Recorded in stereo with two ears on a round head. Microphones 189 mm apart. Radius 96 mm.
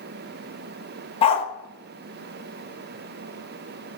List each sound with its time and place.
1.2 s a dog barking: 25° left (ahead or behind), 0.6 m